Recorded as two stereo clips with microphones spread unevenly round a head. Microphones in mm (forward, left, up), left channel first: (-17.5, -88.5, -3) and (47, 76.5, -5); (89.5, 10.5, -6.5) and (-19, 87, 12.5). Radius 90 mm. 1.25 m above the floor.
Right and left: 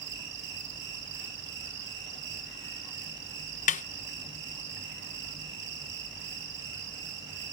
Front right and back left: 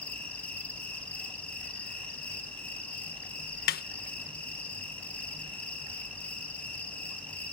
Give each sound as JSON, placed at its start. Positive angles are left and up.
{"t": 0.0, "sound": "an insect", "azimuth_deg": 45, "distance_m": 9.0}
{"t": 3.7, "sound": "a snare drum", "azimuth_deg": -60, "distance_m": 0.8}